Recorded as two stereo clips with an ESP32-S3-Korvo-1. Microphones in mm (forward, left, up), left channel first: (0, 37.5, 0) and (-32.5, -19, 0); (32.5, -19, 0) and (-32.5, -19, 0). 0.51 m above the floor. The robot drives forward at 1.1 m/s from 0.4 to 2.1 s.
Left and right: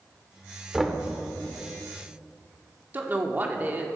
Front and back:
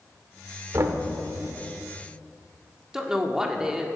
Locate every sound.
0.7 s knocking: 155° left, 1.0 m; by 1.0 s 160° left, 1.2 m
2.9 s a woman speaking: 110° right, 1.0 m